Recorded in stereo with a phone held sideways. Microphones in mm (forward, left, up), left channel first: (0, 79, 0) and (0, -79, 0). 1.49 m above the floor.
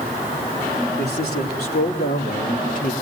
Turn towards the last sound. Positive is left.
turn(degrees=55)  # may be behind; listen again after turning